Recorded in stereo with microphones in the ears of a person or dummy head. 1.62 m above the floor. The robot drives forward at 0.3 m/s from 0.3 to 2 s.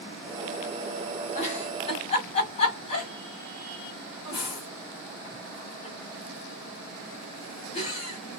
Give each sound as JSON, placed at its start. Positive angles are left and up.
{"t": 1.4, "sound": "a giggle", "side_deg": 35, "distance_m": 2.5}